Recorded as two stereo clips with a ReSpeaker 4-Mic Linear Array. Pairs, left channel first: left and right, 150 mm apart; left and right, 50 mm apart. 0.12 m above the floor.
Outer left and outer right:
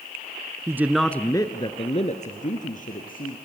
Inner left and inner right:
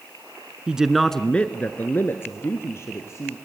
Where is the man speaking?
20° right (ahead or behind), 1.2 m; by 3.4 s 70° left (ahead or behind), 3 m.